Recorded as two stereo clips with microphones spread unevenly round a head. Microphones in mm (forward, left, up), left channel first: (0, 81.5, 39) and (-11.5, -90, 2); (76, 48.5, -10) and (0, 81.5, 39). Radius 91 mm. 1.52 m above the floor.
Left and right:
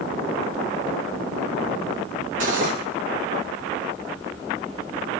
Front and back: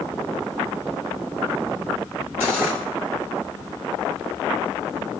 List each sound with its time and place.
2.4 s cutlery clinking: 140° right, 2 m